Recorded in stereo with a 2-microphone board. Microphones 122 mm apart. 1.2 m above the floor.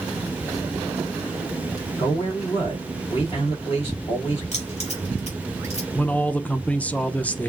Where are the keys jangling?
60° left (ahead or behind), 3 m.